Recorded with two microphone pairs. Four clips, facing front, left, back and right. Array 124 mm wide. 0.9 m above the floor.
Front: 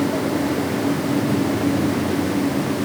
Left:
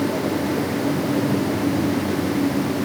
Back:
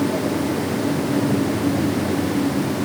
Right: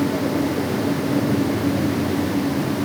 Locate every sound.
Only background noise.